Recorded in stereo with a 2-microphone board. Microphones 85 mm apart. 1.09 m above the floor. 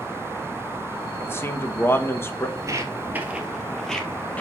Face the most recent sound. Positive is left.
turn(degrees=15)  # may be behind; listen again after turning